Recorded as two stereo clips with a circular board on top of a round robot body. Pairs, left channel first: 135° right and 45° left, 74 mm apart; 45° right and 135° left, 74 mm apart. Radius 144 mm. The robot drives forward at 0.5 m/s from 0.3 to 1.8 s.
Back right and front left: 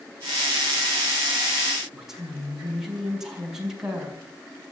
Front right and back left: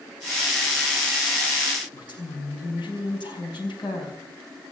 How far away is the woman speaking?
About 5 m.